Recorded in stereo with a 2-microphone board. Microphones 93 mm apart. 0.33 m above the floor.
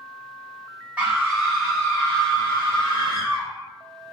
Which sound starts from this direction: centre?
A scream, at 1.0 s.